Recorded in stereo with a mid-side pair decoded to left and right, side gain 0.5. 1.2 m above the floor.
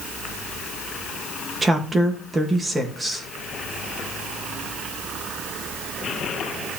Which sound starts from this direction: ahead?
A woman speaking, at 1.6 s.